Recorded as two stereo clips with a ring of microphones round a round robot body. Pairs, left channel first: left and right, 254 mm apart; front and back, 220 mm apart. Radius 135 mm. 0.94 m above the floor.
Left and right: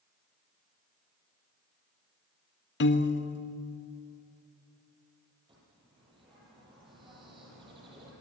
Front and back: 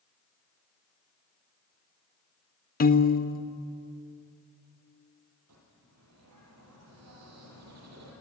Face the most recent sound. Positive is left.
turn(degrees=-160)